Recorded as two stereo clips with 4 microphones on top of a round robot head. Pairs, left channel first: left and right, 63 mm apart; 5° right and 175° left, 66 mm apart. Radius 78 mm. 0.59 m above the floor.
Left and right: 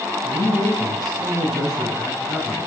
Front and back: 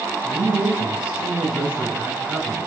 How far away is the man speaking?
About 4.5 m.